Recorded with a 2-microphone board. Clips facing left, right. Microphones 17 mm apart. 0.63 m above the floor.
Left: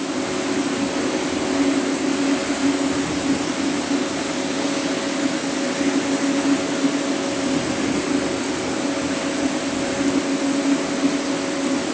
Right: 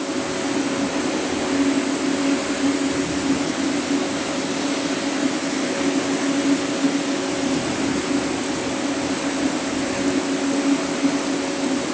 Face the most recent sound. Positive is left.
No sound to turn to.